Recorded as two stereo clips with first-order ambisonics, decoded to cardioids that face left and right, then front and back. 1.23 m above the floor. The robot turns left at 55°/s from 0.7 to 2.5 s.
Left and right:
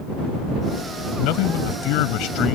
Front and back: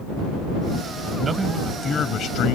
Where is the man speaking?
115° left; by 2.5 s 40° left.